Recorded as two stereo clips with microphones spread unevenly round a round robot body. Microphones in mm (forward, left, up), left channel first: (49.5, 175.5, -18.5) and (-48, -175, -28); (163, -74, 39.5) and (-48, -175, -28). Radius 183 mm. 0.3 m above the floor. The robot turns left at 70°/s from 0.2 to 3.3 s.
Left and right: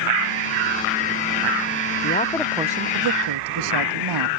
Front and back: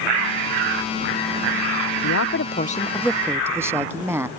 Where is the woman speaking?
15° left; by 4.3 s 75° right.